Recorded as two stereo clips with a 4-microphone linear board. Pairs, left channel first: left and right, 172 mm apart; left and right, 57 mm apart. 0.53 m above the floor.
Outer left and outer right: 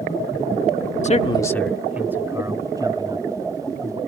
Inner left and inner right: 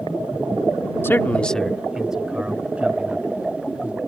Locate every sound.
1.0 s a man speaking: 45° left (ahead or behind); by 4.0 s 30° right (ahead or behind)